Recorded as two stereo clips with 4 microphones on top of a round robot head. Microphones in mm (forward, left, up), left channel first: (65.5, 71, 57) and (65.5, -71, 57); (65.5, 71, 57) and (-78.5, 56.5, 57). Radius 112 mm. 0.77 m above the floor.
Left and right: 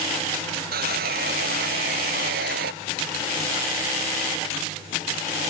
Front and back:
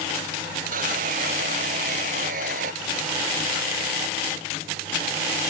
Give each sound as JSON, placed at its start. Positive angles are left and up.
{"t": 0.7, "sound": "sawing", "azimuth_deg": -125}